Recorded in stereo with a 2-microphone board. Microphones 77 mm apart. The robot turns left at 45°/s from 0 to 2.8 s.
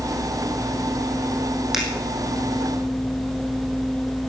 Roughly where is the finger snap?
Centre.